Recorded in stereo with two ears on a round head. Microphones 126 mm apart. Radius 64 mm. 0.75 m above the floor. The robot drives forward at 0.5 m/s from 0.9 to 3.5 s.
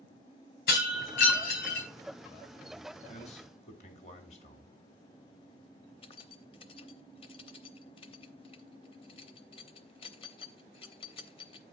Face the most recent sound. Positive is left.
turn(degrees=35)  # may be behind; listen again after turning